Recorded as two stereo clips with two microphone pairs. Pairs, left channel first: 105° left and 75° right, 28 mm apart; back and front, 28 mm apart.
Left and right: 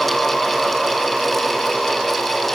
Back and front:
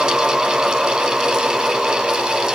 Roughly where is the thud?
I don't hear a thud.